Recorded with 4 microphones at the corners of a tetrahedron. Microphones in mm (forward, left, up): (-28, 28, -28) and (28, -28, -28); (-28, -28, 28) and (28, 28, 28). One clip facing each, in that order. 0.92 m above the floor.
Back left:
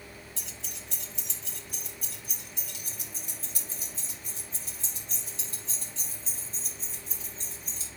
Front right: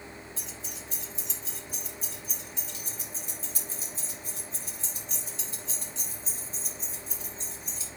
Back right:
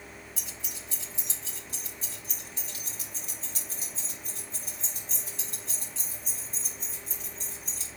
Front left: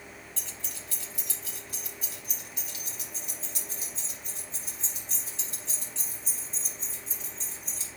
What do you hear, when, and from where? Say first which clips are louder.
0.4 s keys jangling: front right 3 dB, even; 145° left, 1.5 m; by 7.9 s straight behind, 7.5 m